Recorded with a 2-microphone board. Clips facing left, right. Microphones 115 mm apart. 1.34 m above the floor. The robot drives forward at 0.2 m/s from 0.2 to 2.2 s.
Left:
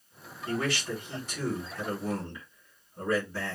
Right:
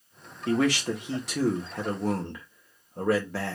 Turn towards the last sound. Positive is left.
turn(degrees=-70)  # may be behind; listen again after turning